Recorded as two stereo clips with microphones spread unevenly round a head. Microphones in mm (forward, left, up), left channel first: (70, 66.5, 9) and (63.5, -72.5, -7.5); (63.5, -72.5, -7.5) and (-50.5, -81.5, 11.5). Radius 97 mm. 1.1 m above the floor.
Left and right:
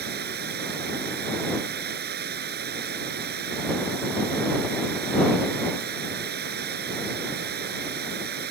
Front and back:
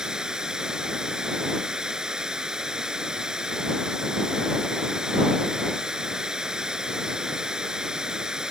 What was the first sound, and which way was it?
Running water, 90° right.